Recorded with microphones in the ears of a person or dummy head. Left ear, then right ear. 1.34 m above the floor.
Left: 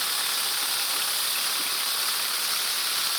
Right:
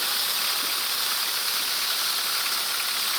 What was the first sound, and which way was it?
Only background noise.